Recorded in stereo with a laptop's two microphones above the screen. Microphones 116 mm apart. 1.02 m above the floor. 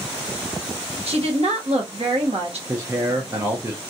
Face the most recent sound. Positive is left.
turn(degrees=-20)  # may be behind; listen again after turning